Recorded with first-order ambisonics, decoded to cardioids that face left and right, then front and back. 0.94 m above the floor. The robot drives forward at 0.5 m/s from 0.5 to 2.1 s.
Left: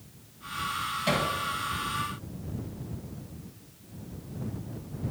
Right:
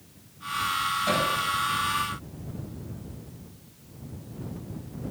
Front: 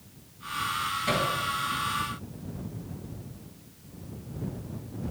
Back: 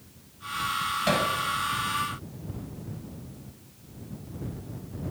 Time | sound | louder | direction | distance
1.1 | hammering | right 1 dB, back 2 dB | 175° left | 5.5 m